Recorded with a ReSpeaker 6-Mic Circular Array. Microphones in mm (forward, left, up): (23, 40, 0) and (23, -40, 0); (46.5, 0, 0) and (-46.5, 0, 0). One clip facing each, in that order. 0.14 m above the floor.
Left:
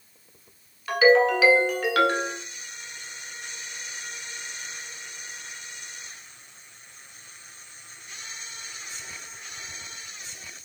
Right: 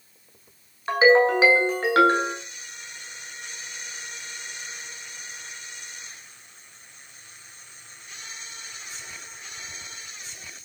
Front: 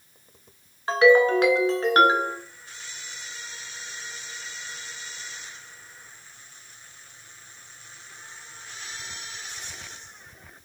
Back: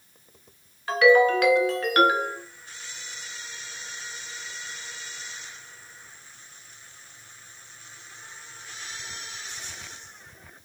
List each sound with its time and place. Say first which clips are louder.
0.9 s a ringtone: right 1 dB, front 1 dB; 45° right, 0.7 m